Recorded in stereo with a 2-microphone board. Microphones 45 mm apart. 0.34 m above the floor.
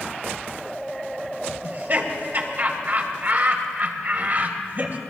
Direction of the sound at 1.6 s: 45° right (ahead or behind).